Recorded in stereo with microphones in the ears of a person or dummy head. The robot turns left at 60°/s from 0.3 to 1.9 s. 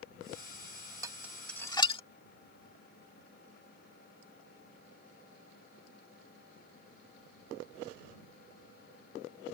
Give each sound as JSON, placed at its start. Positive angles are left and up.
{"t": 1.0, "sound": "dishes clattering", "side_deg": -20}